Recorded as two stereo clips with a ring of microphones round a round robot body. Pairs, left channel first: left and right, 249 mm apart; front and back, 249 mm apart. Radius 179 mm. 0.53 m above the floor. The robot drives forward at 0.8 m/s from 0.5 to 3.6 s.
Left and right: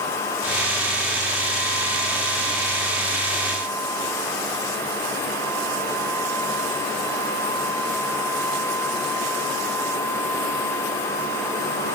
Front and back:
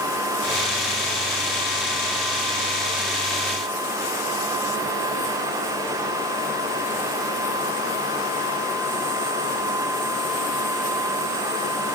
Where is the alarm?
No alarm in this recording.